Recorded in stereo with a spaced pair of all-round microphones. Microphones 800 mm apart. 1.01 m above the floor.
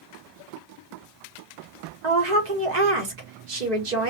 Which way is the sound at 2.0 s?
65° right (ahead or behind).